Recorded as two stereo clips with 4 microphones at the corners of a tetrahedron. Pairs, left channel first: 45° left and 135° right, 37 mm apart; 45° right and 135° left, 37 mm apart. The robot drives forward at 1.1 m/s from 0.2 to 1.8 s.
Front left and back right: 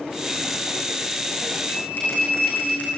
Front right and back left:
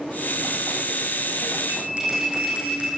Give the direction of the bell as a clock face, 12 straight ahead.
9 o'clock.